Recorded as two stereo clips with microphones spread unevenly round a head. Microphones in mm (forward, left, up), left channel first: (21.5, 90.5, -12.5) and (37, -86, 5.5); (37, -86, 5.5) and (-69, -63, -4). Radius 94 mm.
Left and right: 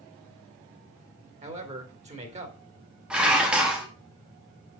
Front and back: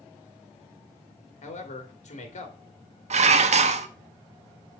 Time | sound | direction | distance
1.4 | a man speaking | 30° right | 2 m
3.1 | dishes clattering | 170° right | 1.0 m